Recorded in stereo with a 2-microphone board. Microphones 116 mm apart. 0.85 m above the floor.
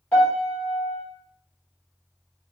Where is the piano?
10° left (ahead or behind), 1.2 m.